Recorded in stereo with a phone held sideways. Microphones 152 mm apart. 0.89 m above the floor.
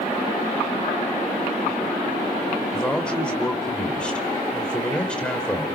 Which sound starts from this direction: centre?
A man speaking, at 2.7 s.